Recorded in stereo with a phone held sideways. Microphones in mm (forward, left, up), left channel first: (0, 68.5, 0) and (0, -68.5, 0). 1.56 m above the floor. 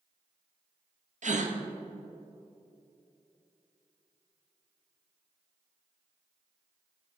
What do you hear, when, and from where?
1.2 s a gasp: 60° right (ahead or behind), 0.6 m